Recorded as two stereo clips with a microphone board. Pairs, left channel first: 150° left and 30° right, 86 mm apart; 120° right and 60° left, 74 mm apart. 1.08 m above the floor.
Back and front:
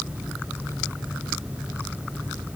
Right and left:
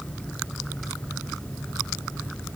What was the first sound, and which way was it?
Only background noise.